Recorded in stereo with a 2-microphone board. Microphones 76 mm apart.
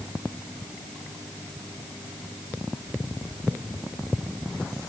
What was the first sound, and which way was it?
Only background noise.